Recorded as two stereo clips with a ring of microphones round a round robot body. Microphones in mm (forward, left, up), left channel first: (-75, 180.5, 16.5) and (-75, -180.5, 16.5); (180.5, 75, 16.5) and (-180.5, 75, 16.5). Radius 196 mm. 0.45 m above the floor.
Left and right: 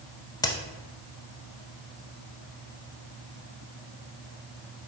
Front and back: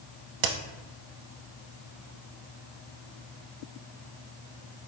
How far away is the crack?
About 0.5 m.